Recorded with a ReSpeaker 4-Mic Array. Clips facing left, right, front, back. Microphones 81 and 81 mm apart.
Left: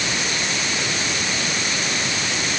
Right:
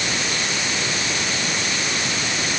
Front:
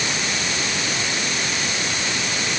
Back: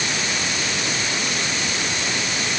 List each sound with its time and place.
Only background noise.